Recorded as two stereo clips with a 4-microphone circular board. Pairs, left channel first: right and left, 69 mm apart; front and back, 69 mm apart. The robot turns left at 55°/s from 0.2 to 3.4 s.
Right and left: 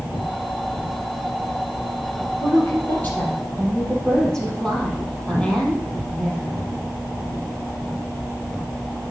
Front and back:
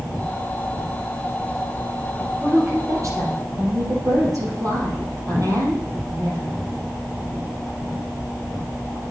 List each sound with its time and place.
2.4 s a woman speaking: 115° right, 4 m; by 6.6 s 165° right, 4 m